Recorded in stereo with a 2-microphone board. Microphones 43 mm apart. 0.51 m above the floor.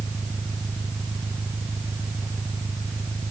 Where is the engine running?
65° right (ahead or behind).